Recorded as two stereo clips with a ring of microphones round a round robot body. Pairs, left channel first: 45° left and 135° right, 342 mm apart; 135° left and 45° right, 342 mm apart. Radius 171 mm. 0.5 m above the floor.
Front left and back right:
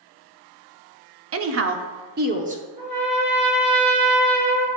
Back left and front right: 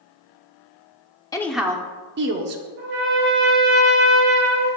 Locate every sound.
1.3 s a woman speaking: 150° right, 0.8 m; by 2.6 s 70° right, 0.9 m
2.8 s a trumpet: 105° right, 3 m